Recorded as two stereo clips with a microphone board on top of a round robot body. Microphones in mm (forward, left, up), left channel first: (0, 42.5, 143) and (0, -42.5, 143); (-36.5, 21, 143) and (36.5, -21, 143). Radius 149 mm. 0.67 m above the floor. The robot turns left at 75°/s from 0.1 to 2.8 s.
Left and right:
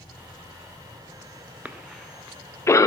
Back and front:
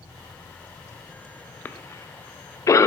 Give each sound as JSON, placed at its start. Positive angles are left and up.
{"t": 1.6, "sound": "a cough", "azimuth_deg": -155, "distance_m": 0.6}